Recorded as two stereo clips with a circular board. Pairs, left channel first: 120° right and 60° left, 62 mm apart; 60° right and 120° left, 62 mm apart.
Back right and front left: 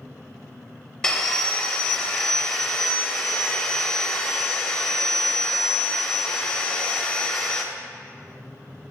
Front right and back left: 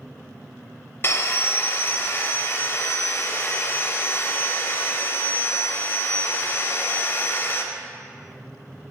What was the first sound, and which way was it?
Sawing, 50° right.